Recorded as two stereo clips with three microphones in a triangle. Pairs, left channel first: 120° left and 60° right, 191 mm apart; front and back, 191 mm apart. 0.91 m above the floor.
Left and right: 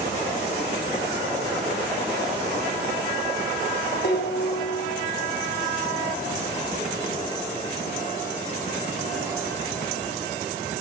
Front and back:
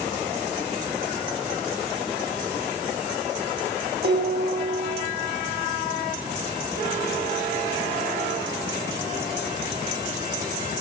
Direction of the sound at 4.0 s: 150° left.